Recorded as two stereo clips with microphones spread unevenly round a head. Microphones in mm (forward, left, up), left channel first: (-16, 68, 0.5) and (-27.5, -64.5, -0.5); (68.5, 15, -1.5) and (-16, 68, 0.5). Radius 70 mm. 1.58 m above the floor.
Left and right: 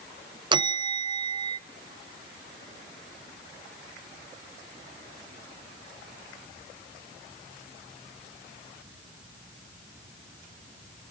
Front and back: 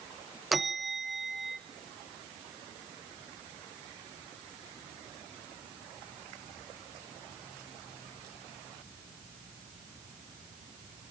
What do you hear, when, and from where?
0.5 s a bell: 125° right, 0.6 m